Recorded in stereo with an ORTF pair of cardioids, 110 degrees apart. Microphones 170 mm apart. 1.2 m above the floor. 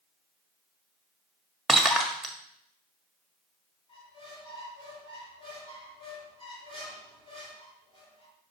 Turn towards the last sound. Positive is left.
turn(degrees=35)